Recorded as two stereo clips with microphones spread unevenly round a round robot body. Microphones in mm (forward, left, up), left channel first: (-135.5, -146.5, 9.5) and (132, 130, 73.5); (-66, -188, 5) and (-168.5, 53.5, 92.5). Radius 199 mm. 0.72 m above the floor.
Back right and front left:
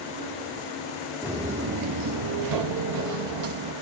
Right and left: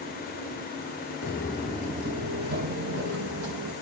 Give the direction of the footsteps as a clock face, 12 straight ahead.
1 o'clock.